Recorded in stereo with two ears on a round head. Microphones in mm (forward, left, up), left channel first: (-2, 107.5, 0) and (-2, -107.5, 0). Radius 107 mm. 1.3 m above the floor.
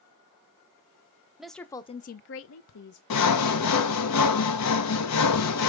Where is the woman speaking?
5° right (ahead or behind), 0.9 m; by 3.0 s 90° left, 0.9 m.